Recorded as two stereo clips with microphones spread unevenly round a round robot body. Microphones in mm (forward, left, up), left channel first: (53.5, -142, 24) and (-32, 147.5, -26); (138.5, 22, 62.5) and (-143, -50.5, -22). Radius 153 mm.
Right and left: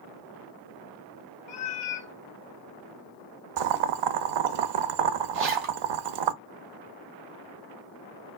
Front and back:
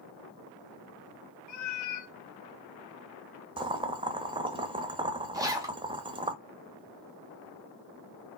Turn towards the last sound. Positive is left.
turn(degrees=130)